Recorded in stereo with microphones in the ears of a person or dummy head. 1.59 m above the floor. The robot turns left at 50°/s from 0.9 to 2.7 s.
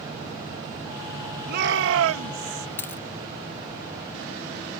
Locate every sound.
1.5 s a shout: 55° right; by 2.7 s 115° right
2.8 s a dropped coin: 10° left (ahead or behind)